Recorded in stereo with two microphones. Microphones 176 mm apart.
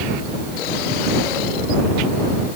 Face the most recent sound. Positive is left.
No sound to turn to.